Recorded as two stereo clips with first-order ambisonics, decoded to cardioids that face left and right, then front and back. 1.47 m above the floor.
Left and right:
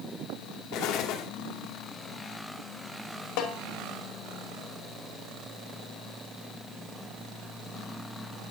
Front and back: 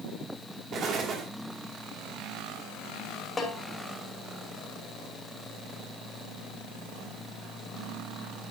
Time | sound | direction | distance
0.7 | an explosion | 125° left | 2 m
3.4 | a snare drum | 75° left | 2.5 m